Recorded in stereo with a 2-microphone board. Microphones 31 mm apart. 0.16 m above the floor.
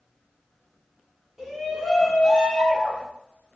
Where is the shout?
10° right (ahead or behind), 1.0 m; by 3.0 s 25° left (ahead or behind), 1.3 m.